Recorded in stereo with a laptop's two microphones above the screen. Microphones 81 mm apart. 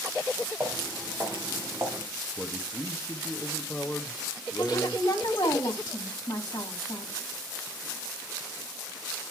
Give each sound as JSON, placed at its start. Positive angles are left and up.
{"t": 0.6, "sound": "footsteps", "side_deg": -20, "distance_m": 4.5}
{"t": 2.4, "sound": "a man speaking", "side_deg": 25, "distance_m": 1.4}
{"t": 4.6, "sound": "a woman speaking", "side_deg": 60, "distance_m": 2.5}